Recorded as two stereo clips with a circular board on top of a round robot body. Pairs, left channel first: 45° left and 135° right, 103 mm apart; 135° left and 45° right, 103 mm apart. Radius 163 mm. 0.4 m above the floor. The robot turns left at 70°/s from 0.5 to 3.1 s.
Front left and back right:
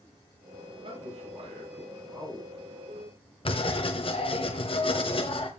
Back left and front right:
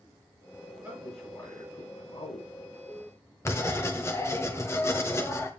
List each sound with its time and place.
0.8 s a man speaking: 115° right, 7.5 m; by 2.5 s 130° left, 7.5 m
3.5 s writing: 70° left, 1.7 m